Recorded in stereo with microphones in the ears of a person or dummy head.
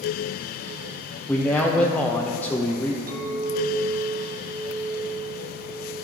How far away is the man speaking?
About 0.5 m.